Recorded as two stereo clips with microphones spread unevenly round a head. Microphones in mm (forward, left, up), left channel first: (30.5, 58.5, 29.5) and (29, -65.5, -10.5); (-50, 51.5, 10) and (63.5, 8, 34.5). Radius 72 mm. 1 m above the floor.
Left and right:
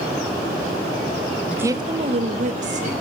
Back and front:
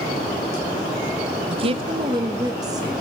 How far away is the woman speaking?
About 0.6 m.